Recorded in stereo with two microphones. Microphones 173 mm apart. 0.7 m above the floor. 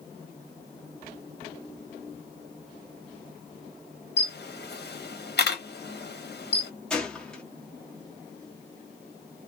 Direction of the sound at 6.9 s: 5° left (ahead or behind).